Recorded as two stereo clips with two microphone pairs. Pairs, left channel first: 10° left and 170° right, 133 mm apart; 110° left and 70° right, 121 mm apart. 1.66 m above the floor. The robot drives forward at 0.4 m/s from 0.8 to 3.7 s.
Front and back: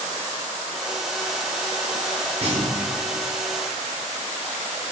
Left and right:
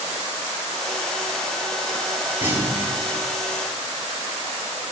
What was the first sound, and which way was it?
A clunk, 140° right.